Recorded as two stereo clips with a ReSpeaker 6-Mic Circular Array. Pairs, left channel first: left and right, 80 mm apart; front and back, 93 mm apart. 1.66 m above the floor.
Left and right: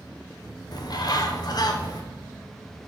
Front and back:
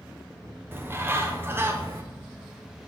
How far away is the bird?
About 0.8 m.